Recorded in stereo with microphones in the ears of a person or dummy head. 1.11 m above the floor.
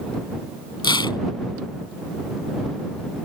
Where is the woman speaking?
No woman speaking in this recording.